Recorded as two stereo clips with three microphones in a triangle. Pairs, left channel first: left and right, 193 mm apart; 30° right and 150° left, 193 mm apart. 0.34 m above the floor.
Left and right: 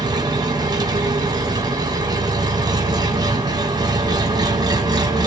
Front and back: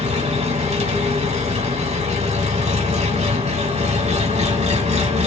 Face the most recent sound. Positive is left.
turn(degrees=-155)